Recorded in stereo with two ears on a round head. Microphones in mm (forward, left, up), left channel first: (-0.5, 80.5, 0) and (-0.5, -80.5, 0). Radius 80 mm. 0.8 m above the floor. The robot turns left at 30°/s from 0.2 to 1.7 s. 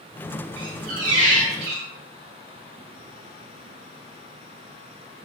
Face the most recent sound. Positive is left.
turn(degrees=-115)